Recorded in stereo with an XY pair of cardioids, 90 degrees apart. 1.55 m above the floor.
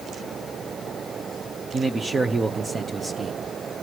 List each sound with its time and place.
1.7 s a man speaking: 40° right, 1.1 m